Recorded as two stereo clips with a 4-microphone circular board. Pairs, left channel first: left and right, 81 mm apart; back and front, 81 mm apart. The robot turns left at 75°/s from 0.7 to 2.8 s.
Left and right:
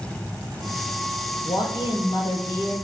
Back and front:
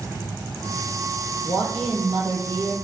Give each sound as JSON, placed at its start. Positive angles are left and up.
{"t": 1.4, "sound": "a man speaking", "azimuth_deg": 125, "distance_m": 2.5}